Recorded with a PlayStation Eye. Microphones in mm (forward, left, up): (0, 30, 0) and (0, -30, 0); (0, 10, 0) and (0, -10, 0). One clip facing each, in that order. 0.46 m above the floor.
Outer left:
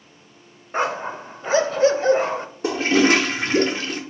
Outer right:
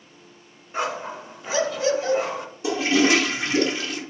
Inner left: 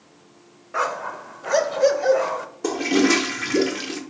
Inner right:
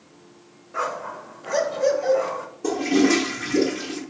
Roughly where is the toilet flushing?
Left.